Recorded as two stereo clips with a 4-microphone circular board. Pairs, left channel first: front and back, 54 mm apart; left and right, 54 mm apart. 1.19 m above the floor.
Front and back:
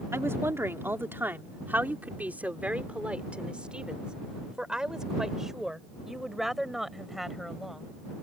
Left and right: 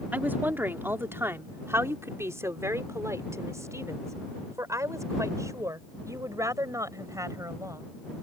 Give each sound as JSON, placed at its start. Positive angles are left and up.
{"t": 0.1, "sound": "a woman speaking", "azimuth_deg": -145}